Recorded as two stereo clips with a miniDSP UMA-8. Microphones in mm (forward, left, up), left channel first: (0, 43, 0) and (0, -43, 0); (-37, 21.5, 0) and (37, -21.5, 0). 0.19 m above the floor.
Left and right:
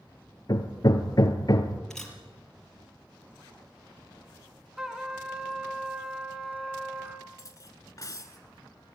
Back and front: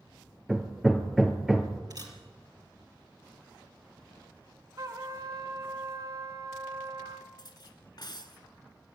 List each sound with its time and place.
0.5 s hammering: 55° left, 2.0 m
1.9 s a camera shutter: 5° left, 4 m
4.8 s a trumpet: 5° right, 2 m
7.4 s cutlery clinking: 130° left, 1.4 m